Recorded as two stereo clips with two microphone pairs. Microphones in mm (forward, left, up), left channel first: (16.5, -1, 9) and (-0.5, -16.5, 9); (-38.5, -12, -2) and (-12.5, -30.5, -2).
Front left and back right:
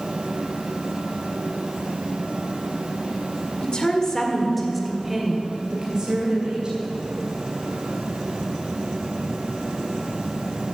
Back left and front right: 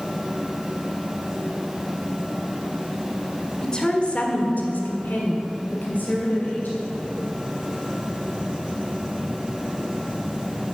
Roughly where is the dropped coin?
No dropped coin in this recording.